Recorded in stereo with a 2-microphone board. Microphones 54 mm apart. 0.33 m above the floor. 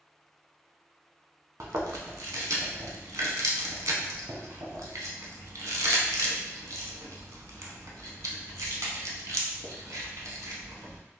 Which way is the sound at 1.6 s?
85° right.